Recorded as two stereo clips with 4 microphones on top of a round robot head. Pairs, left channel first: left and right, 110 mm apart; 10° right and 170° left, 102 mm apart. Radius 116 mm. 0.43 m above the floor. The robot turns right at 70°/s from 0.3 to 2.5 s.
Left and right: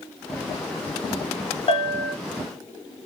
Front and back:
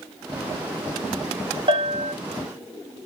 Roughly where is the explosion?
No explosion in this recording.